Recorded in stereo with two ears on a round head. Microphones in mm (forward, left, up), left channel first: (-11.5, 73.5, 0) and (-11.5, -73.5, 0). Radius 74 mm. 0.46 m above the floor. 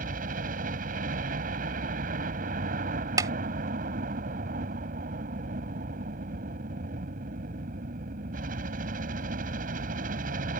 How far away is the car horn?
I don't hear a car horn.